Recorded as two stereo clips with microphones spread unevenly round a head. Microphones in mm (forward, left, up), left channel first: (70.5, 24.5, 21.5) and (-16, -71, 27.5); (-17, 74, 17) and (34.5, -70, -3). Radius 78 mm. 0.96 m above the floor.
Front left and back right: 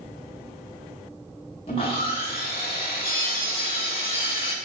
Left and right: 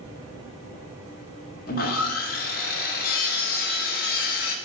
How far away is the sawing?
About 0.5 m.